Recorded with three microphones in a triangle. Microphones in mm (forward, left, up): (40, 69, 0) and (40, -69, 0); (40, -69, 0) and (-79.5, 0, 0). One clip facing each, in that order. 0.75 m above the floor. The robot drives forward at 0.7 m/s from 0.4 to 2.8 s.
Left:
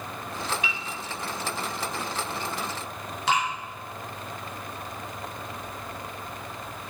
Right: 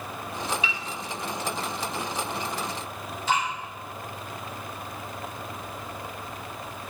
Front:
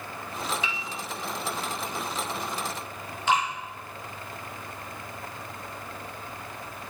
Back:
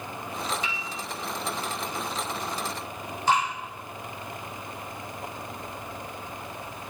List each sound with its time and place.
0.6 s a piano: 115° left, 1.4 m; by 0.8 s 120° left, 1.4 m
3.3 s dripping: 100° left, 3 m